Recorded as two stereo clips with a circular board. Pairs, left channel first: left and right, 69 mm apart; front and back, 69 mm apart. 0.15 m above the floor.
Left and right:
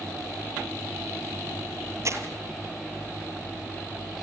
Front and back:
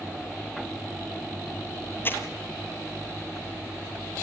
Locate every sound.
2.0 s crumpling: 55° right, 3 m